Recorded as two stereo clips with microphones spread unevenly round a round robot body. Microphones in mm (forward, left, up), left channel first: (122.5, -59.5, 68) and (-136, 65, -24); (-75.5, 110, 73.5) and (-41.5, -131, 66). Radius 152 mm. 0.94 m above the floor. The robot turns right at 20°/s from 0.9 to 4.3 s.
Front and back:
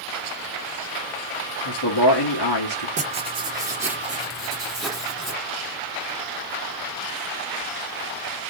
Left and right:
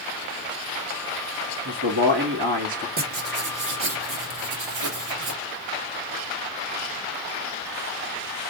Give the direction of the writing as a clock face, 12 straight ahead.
4 o'clock.